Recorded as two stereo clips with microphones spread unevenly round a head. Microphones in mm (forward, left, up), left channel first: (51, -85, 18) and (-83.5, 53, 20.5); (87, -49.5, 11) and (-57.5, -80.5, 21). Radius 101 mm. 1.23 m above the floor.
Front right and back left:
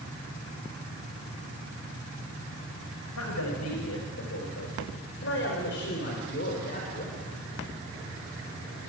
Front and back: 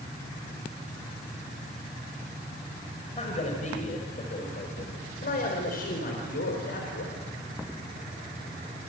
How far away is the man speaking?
About 5.5 m.